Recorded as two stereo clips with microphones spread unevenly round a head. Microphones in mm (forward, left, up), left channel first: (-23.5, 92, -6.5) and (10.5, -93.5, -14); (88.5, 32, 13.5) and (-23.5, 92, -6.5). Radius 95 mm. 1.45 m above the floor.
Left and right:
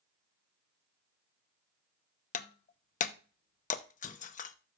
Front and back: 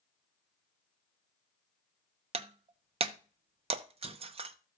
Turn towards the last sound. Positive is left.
turn(degrees=125)